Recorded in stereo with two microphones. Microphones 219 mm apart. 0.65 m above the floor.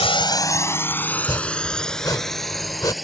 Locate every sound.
0.0 s a drone: 25° left (ahead or behind); by 3.0 s centre (ahead or behind)
1.1 s chopping: 15° left (ahead or behind)